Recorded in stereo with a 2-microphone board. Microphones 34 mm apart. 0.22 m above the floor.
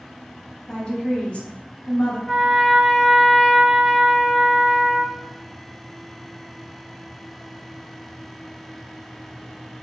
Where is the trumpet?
5° right (ahead or behind), 0.6 m.